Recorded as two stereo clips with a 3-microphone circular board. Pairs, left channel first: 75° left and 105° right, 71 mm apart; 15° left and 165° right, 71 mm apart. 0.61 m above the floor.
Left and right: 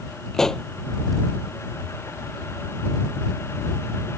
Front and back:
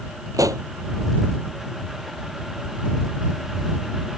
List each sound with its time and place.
0.3 s a pop: 160° left